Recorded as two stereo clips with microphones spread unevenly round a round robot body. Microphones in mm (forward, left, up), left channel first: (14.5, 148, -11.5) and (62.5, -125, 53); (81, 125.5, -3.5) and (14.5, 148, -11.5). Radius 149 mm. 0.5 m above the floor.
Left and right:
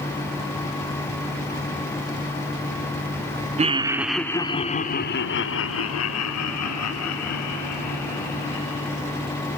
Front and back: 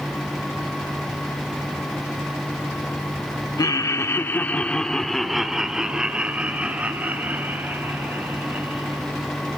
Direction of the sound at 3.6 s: 5° right.